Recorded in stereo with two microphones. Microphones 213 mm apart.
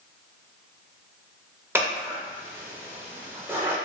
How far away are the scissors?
About 0.6 m.